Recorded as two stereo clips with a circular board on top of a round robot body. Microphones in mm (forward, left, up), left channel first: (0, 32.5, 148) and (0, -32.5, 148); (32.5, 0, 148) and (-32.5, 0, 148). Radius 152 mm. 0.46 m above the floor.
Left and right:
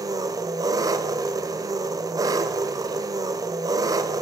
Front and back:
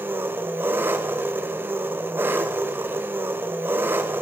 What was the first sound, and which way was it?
An engine running, 120° right.